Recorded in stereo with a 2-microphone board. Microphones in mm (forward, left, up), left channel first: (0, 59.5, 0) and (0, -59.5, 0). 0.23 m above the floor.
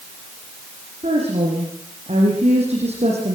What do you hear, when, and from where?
1.0 s a woman speaking: 60° right (ahead or behind), 9.5 m